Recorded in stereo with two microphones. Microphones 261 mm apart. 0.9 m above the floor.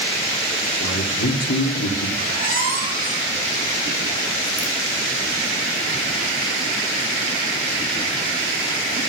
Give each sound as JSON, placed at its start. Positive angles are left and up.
{"t": 0.8, "sound": "a man speaking", "side_deg": 75, "distance_m": 2.5}
{"t": 2.2, "sound": "a squeak", "side_deg": -35, "distance_m": 5.5}